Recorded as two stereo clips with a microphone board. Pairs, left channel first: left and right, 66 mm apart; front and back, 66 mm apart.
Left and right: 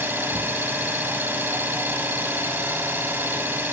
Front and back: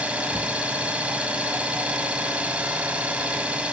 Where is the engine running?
120° right, 0.9 m.